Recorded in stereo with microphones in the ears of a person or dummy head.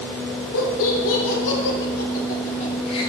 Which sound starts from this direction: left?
Laughter, at 0.5 s.